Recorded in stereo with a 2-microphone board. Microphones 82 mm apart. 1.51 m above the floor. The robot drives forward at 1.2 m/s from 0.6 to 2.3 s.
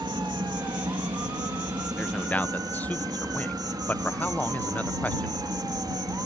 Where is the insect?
80° right; by 6.3 s 60° right (ahead or behind).